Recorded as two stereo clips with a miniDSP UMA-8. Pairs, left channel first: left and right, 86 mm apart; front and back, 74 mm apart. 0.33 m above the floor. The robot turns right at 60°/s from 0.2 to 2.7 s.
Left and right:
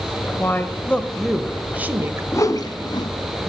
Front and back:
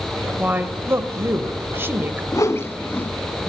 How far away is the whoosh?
About 0.9 m.